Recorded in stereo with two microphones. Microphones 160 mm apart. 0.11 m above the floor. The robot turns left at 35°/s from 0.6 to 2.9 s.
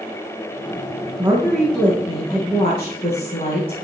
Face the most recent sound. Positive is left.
turn(degrees=145)